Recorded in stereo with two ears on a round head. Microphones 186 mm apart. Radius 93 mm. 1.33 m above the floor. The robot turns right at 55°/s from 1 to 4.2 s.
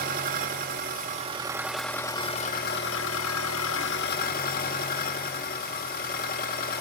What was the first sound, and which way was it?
An engine running, 45° right.